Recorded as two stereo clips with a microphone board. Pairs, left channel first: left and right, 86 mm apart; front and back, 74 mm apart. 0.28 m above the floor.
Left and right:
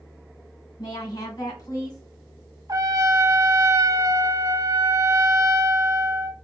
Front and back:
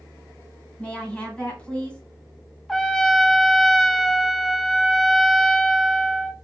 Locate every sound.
0.8 s a woman speaking: 75° left, 1.6 m
2.7 s a trumpet: 85° right, 0.6 m